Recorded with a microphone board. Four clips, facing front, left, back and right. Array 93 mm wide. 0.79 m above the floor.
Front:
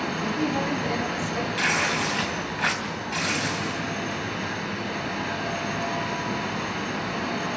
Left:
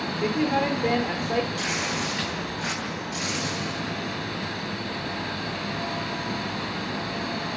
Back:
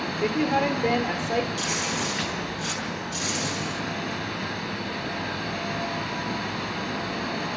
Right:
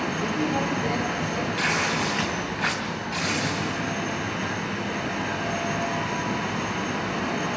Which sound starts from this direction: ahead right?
Tearing paper, at 1.6 s.